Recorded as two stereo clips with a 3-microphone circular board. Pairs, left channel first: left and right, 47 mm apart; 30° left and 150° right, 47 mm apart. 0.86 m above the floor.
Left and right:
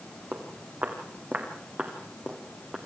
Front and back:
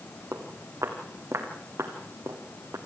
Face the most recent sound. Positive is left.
turn(degrees=-165)